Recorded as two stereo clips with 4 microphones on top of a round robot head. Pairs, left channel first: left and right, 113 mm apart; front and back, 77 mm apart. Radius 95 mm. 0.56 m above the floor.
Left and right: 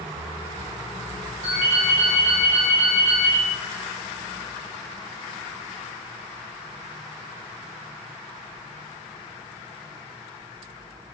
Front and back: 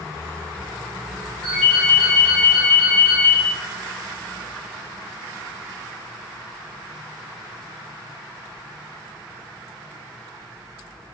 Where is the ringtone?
90° right, 1.4 m.